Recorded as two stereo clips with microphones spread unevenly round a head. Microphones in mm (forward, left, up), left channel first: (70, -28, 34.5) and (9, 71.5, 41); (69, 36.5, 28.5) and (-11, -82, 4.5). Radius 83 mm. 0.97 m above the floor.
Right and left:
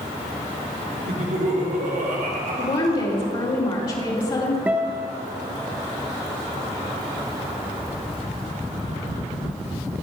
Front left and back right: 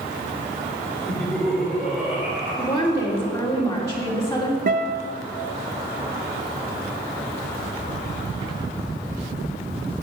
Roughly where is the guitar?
Behind.